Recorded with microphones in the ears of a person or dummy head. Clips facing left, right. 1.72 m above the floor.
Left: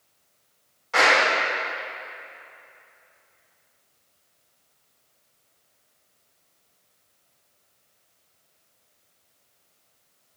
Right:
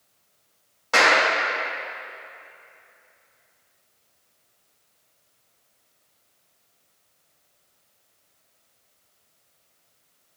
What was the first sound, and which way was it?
A clap, 75° right (ahead or behind).